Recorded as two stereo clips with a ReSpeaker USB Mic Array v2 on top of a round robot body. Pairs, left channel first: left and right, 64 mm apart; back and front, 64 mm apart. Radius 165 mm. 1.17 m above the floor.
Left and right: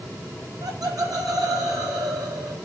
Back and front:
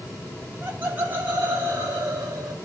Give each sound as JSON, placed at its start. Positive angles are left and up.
{"t": 0.4, "sound": "laughter", "azimuth_deg": -65, "distance_m": 7.0}